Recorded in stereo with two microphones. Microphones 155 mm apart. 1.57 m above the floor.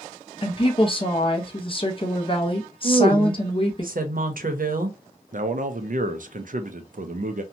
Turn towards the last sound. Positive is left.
turn(degrees=-60)  # may be behind; listen again after turning